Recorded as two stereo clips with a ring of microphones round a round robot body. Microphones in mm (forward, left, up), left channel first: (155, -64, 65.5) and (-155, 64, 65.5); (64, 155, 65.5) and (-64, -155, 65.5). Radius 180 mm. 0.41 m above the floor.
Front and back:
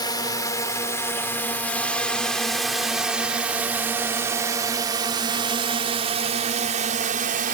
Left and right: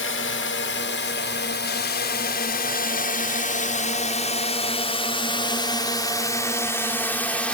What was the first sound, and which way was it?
A drone, 50° left.